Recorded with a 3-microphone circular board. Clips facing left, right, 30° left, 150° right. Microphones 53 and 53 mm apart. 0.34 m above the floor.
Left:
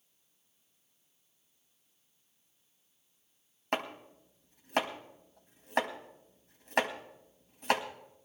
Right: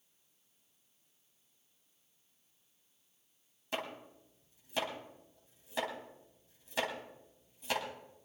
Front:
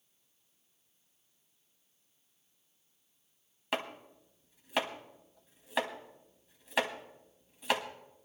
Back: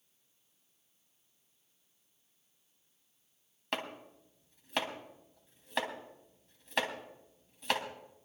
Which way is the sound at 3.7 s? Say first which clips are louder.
Left 5 dB, front 2 dB; 115° left.